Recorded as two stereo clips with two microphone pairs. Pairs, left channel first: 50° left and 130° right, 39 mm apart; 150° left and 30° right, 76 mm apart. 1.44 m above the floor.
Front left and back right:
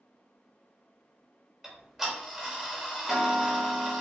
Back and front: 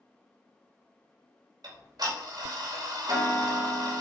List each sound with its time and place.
1.6 s ticking: 50° right, 3 m